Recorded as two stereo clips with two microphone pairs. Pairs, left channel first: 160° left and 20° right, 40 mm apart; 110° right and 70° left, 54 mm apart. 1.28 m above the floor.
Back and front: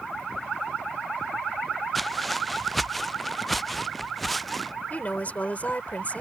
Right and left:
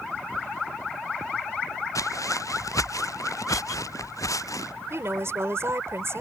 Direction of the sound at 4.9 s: 105° left.